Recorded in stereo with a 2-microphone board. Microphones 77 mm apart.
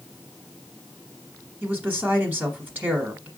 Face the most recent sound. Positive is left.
turn(degrees=-25)  # may be behind; listen again after turning